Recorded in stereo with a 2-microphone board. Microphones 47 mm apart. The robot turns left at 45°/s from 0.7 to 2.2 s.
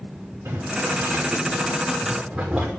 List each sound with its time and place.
0.5 s boiling: 85° right, 5.5 m; by 2.7 s 20° right (ahead or behind), 5.5 m